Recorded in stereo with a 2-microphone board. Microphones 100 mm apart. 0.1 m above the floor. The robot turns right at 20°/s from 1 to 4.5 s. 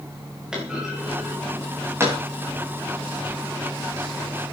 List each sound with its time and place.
0.5 s a clunk: 10° right (ahead or behind), 7 m; by 2.2 s 30° right (ahead or behind), 7 m